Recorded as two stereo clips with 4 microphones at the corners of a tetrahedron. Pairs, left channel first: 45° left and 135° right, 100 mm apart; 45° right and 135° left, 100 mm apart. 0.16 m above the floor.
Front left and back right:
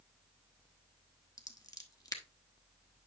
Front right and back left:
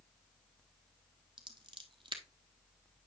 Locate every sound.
1.4 s scissors: 100° left, 1.1 m